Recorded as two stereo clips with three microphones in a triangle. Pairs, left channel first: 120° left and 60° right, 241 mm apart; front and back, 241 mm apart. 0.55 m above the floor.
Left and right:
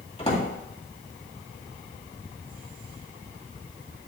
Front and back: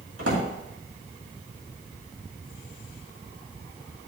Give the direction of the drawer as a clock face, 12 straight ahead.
6 o'clock.